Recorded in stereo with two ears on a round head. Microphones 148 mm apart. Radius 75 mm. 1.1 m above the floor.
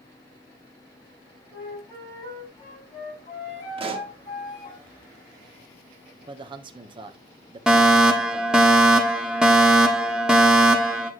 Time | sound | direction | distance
1.5 | a flute | 25° left (ahead or behind) | 7 m
3.8 | a pop | 35° right (ahead or behind) | 1.4 m
6.2 | a man speaking | 30° right (ahead or behind) | 1.1 m
7.7 | a fire alarm | 5° right (ahead or behind) | 1.4 m